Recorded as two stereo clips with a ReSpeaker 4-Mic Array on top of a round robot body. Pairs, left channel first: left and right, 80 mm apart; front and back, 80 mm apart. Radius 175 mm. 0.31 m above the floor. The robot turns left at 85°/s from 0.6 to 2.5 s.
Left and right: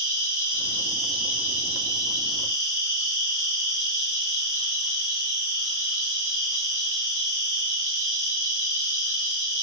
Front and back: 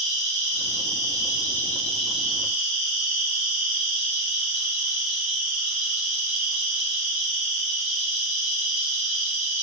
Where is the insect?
35° left, 1.3 m; by 9.6 s 125° right, 1.3 m.